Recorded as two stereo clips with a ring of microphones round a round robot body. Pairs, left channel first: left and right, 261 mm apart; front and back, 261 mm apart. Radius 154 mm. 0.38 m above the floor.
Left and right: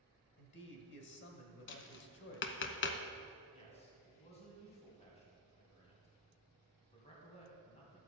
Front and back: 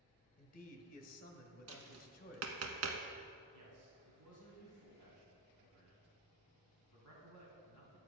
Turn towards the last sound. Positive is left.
turn(degrees=155)